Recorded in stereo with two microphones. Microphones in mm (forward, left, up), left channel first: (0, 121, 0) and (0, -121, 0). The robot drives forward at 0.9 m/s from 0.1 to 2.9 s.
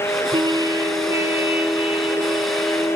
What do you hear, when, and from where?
0.3 s a trumpet: 20° right (ahead or behind), 0.8 m; by 3.0 s 5° right (ahead or behind), 3 m